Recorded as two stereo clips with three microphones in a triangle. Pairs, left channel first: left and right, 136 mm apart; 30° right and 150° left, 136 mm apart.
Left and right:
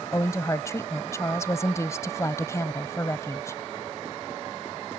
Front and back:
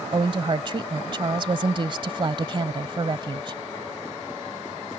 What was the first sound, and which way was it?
A woman speaking, 140° left.